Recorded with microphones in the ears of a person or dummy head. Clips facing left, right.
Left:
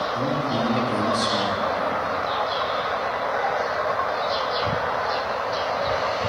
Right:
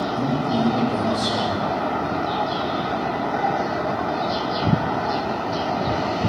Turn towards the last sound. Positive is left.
turn(degrees=75)  # may be behind; listen again after turning